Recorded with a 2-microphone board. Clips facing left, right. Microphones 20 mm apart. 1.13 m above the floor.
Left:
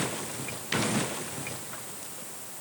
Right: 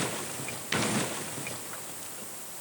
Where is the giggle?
No giggle in this recording.